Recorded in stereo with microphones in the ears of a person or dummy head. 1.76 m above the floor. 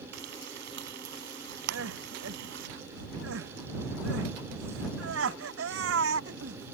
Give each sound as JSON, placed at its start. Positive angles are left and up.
{"t": 0.1, "sound": "frying", "side_deg": -60}
{"t": 1.7, "sound": "crying", "side_deg": -85}